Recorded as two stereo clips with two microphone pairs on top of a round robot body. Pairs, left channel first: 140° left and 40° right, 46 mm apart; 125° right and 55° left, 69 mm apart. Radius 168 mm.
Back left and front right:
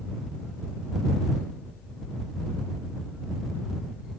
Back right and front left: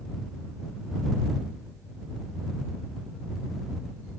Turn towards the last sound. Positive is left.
No sound to turn to.